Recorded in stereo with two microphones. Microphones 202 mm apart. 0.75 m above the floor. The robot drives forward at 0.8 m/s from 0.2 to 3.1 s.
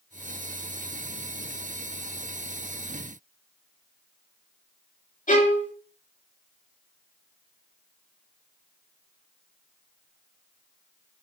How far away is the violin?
About 2.5 m.